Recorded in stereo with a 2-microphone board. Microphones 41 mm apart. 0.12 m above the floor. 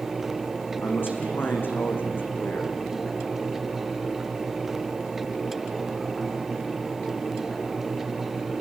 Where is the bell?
No bell in this recording.